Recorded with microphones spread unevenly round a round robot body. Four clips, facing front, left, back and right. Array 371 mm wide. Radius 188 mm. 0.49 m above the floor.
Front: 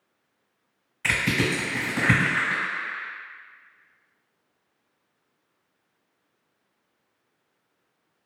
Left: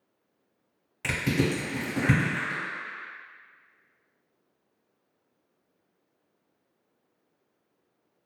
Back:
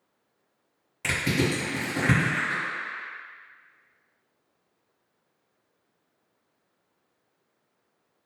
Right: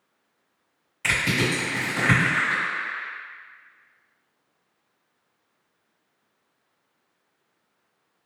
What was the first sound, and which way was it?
Crushing, 105° left.